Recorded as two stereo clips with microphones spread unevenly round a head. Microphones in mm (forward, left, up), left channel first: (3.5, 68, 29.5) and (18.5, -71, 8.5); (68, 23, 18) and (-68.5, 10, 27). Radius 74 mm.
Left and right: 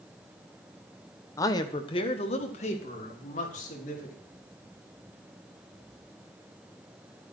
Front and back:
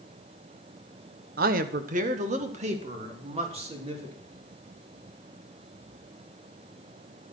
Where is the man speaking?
165° left, 1.2 m; by 4.1 s 135° left, 4.5 m.